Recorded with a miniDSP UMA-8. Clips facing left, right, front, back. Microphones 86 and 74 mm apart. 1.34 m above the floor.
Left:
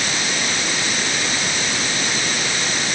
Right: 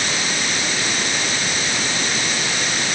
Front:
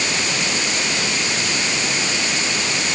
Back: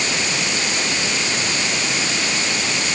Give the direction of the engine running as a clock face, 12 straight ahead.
I don't hear an engine running.